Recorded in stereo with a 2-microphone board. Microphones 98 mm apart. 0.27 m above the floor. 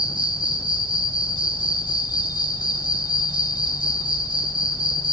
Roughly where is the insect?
Left.